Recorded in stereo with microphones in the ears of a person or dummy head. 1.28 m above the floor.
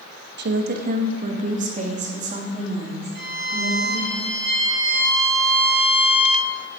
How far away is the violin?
About 3 m.